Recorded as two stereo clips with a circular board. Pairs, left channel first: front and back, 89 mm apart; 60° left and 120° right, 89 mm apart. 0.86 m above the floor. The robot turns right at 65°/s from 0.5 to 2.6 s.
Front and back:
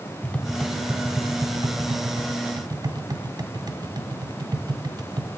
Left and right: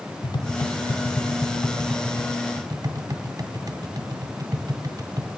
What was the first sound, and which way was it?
Tapping, 70° left.